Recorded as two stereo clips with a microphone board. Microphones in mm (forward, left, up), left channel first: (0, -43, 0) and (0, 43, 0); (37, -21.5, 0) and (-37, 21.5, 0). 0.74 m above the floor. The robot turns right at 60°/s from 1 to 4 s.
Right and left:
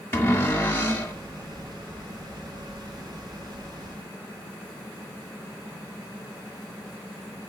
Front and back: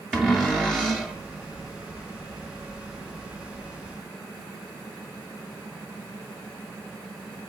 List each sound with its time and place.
0.1 s a cupboard door: 120° right, 1.1 m; by 1.1 s 110° right, 1.1 m